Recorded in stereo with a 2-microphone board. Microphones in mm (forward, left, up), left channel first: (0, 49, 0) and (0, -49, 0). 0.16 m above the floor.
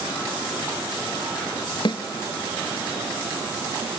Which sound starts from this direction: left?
A snare drum, at 1.9 s.